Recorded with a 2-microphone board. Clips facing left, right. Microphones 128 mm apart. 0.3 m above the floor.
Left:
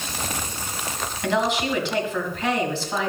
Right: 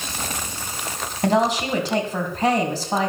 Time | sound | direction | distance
1.2 | a woman speaking | 40° right (ahead or behind) | 2.5 m